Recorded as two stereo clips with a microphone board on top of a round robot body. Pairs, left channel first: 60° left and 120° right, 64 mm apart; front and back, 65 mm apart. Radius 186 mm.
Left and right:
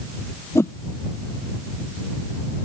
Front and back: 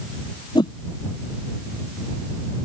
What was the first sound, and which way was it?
A whoosh, 5° left.